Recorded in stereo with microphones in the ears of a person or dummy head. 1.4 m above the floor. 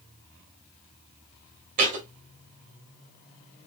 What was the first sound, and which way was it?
A thud, 35° right (ahead or behind).